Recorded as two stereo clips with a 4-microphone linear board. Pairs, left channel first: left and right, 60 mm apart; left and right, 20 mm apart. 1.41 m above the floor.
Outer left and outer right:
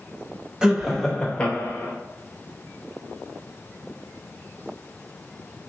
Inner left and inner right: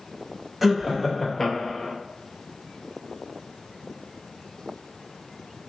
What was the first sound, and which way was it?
Laughter, 10° right (ahead or behind).